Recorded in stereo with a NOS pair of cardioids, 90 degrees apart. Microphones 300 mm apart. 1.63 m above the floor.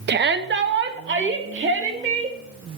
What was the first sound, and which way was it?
A shout, 35° right.